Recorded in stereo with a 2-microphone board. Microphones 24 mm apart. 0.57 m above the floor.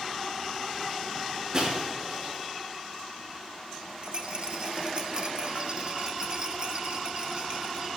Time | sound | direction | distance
1.5 | breaking glass | 30° right (ahead or behind) | 5 m
4.0 | a rattle | 40° right (ahead or behind) | 1.0 m